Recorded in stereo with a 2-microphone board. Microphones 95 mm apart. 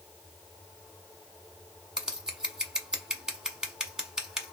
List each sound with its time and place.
2.0 s scissors: 5° right (ahead or behind), 1.0 m